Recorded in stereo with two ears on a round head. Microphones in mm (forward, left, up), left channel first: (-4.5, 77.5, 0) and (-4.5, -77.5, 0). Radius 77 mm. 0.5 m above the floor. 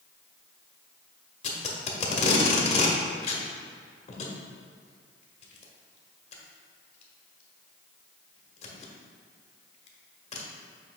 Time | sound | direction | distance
1.4 | tape being pulled | 40° left (ahead or behind) | 1.1 m